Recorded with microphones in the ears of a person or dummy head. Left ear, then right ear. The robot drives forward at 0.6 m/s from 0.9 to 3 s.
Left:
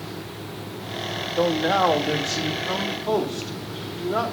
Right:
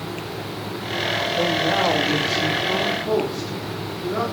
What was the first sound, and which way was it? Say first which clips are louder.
A man speaking: left 2 dB; 65° left (ahead or behind).